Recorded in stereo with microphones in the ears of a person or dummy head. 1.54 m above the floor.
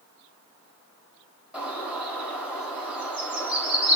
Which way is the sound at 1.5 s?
5° right (ahead or behind).